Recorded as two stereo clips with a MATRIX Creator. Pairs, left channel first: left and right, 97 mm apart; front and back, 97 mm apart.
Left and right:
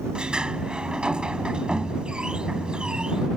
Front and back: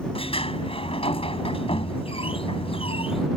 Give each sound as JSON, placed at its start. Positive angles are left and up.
{"t": 0.1, "sound": "a sliding door", "azimuth_deg": -10}